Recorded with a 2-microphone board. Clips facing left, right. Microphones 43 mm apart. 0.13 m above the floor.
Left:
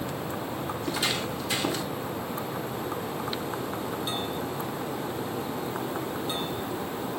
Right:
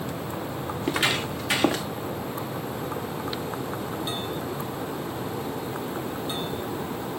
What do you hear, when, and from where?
0.8 s footsteps: 40° right (ahead or behind), 1.1 m; by 1.9 s 80° right, 1.8 m